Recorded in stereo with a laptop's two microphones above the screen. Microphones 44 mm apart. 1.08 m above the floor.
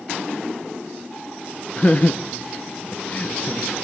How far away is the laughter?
About 0.7 m.